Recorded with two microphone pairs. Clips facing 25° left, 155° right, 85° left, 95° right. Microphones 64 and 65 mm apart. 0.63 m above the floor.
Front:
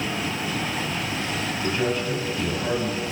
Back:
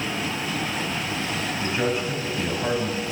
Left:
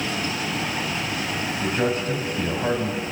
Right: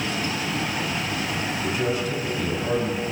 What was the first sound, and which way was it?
A man speaking, 135° left.